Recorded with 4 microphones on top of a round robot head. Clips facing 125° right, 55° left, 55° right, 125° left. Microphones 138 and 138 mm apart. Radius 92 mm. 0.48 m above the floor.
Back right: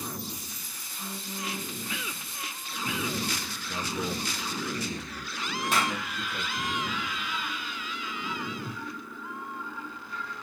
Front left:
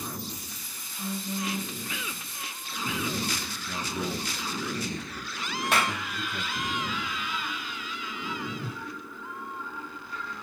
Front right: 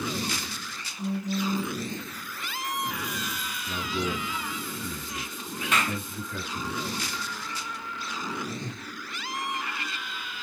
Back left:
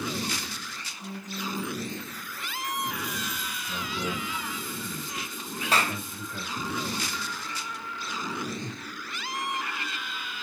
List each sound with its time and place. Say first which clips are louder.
1.0 s a phone buzzing: front left 5 dB, front right 8 dB; 20° right, 5 m
3.7 s a man speaking: even, front right 3 dB; 35° right, 5.5 m
5.7 s a clap: front left 1 dB, back left 1 dB; 75° left, 2.5 m
8.5 s a whoosh: even, even; 35° left, 2.5 m